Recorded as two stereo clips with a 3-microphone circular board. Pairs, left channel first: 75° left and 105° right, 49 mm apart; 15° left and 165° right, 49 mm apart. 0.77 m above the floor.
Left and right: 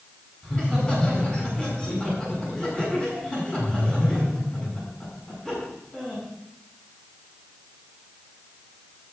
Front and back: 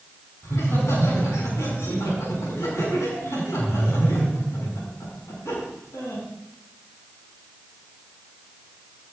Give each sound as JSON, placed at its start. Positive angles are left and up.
{"t": 0.4, "sound": "laughter", "azimuth_deg": 5, "distance_m": 8.5}